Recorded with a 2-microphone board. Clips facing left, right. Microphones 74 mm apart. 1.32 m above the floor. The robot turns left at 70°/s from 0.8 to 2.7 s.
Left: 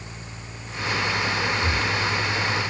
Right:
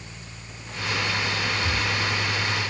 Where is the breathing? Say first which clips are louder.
Left 2 dB; 50° left (ahead or behind), 2 m; by 1.9 s 30° left (ahead or behind), 2 m.